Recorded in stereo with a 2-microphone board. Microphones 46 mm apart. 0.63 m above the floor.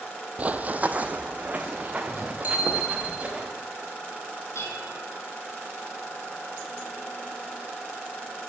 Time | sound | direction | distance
0.4 | running footsteps | 30° right (ahead or behind) | 0.7 m
2.4 | a bicycle bell | 40° right (ahead or behind) | 4.5 m
4.5 | dishes clattering | 75° left (ahead or behind) | 4.5 m